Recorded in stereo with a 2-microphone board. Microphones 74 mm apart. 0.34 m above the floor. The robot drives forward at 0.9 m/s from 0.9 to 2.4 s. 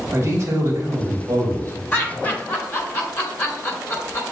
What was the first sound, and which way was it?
A man speaking, 45° right (ahead or behind).